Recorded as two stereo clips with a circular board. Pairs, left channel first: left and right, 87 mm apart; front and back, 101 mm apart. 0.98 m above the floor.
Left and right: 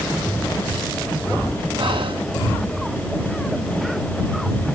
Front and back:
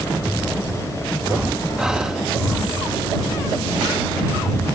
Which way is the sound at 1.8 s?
95° right.